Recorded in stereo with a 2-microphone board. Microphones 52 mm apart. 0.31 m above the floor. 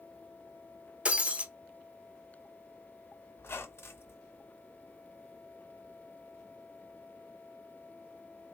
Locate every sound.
1.1 s breaking glass: 25° right (ahead or behind), 0.6 m
3.4 s a squeak: 55° left (ahead or behind), 0.9 m